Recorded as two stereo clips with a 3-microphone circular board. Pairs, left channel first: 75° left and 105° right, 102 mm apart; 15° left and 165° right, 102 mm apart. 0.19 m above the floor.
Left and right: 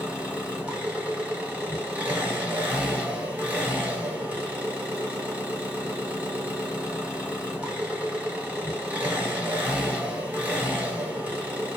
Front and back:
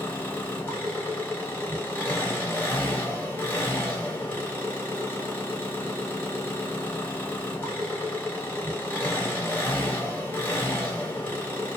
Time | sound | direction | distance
0.0 | an engine running | 40° right | 1.3 m